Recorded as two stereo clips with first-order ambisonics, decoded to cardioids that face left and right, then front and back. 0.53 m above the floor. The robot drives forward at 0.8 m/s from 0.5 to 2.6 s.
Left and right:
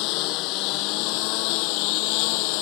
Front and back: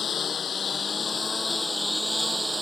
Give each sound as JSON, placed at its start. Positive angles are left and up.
{"t": 0.0, "sound": "a lawn mower", "azimuth_deg": 65}